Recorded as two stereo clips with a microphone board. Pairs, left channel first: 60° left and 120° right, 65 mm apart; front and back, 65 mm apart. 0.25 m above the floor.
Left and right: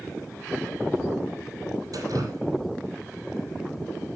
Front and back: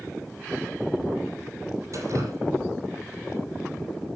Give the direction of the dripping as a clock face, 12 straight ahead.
5 o'clock.